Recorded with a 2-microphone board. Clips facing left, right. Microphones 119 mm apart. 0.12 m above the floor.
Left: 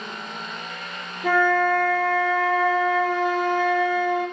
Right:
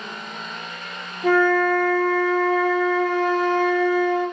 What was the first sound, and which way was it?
A flute, 35° right (ahead or behind).